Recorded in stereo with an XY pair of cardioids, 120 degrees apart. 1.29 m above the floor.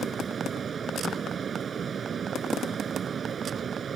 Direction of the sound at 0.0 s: 40° right.